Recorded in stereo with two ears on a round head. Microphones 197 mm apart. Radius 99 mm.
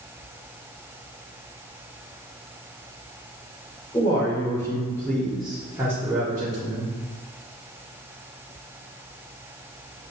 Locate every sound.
3.9 s a man speaking: 20° left (ahead or behind), 1.3 m; by 6.9 s 25° right (ahead or behind), 1.4 m